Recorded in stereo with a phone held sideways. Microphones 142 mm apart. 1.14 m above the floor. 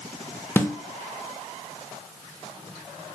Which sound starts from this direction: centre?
A snare drum, at 0.6 s.